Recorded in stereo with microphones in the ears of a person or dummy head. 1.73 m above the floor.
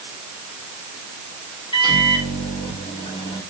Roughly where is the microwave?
Left.